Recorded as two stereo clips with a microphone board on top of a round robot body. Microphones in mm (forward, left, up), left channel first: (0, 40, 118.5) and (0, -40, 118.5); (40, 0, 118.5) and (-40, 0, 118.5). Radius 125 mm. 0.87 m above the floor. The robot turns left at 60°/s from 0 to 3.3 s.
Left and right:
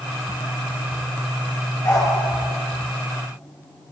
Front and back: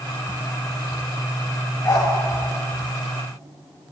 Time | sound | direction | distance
1.8 | a dog barking | 55° left | 8 m